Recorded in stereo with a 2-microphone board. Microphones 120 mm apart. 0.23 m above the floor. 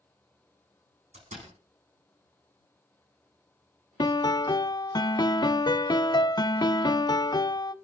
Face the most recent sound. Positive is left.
turn(degrees=35)  # may be behind; listen again after turning